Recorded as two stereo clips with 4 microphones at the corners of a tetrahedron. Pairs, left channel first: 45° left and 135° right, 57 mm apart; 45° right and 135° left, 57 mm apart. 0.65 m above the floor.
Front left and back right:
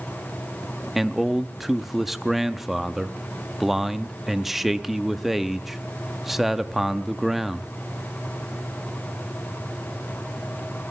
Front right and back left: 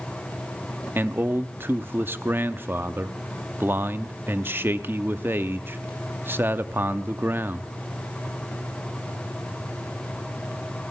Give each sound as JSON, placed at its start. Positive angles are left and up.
{"t": 0.9, "sound": "a man speaking", "azimuth_deg": 145, "distance_m": 0.6}